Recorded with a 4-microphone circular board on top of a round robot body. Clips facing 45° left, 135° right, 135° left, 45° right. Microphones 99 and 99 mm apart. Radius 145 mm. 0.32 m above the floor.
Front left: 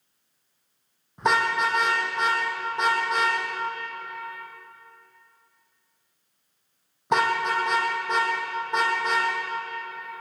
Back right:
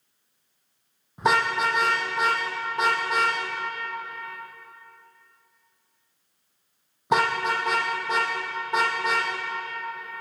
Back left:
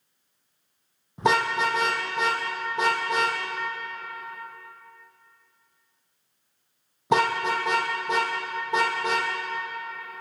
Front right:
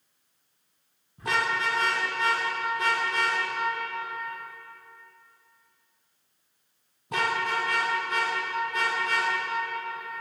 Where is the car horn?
140° left, 7 m.